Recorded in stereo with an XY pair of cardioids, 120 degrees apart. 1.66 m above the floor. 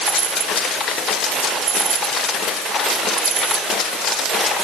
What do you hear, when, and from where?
Only background noise.